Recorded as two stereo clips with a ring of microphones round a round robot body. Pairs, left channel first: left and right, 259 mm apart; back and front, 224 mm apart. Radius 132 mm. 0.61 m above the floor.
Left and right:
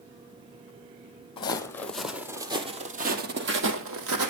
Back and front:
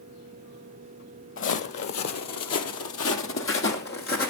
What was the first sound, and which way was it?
Footsteps, 160° left.